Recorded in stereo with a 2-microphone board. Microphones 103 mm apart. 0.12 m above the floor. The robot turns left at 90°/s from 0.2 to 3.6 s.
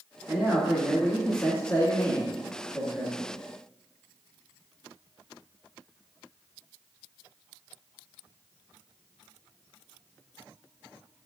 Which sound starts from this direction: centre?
A man speaking, at 0.3 s.